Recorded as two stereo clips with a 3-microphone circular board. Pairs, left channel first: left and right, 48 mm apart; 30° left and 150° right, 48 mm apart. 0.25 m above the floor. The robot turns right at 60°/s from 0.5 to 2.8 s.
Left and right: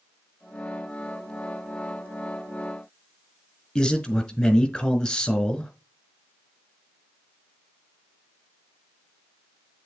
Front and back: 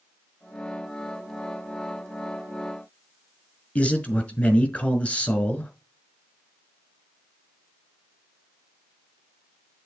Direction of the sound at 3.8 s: 30° left.